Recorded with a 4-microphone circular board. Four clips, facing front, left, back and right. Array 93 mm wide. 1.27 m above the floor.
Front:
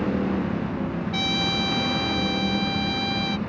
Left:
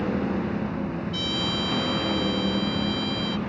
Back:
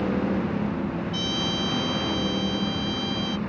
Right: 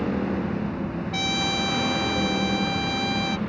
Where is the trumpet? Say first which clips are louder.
Right 2 dB, front 2 dB; 55° right.